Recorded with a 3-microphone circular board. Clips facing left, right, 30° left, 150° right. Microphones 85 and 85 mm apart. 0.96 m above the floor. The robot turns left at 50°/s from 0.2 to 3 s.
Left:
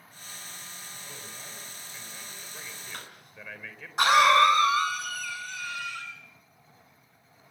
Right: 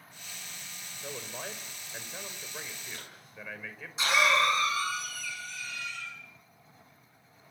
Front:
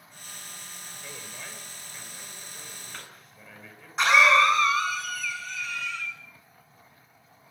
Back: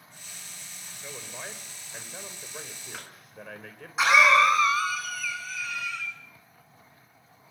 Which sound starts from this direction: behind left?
A cough, at 2.9 s.